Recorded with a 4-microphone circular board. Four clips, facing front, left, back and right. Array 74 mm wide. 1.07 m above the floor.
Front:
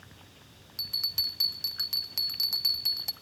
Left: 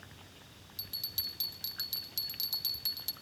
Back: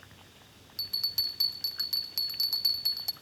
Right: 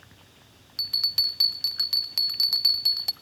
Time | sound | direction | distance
0.8 | a bell | 85° right | 0.7 m